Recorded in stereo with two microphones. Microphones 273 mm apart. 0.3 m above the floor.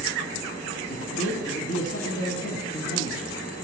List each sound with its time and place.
0.9 s a man speaking: 60° left (ahead or behind), 1.9 m